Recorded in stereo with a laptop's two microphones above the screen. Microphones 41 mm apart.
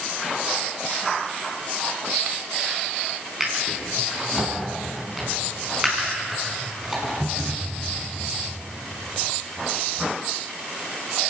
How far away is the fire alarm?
No fire alarm in this recording.